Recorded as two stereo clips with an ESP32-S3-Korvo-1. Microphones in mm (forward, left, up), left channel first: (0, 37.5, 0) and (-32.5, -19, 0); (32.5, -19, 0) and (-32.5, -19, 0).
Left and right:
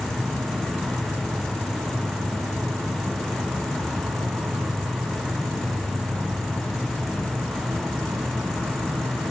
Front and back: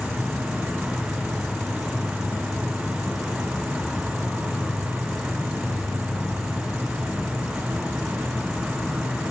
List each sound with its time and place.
0.0 s an insect: 90° right, 2.5 m